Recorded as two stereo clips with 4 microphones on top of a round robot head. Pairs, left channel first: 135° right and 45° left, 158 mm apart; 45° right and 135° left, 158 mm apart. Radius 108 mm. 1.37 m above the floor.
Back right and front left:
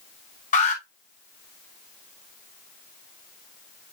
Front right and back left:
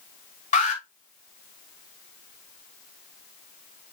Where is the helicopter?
No helicopter in this recording.